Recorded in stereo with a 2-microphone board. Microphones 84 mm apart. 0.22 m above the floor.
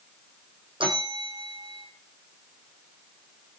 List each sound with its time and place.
0.8 s a bell: 85° right, 4 m